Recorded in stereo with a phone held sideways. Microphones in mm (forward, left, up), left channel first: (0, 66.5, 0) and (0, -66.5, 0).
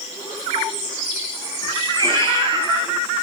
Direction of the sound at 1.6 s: 25° left (ahead or behind).